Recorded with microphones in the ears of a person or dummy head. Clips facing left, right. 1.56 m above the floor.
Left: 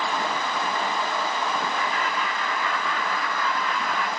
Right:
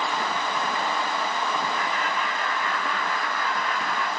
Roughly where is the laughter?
Left.